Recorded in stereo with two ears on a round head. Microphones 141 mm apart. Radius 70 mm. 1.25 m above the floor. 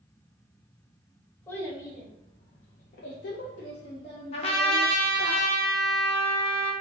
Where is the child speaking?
15° left (ahead or behind), 1.0 m; by 5.3 s 25° left (ahead or behind), 1.4 m.